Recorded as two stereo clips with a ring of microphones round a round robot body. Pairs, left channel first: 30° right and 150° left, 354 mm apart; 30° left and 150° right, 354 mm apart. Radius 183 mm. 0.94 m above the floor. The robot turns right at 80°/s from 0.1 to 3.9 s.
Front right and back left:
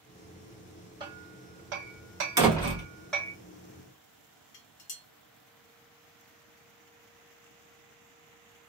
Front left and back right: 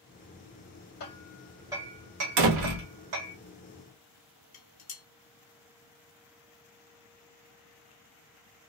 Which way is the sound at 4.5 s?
15° left.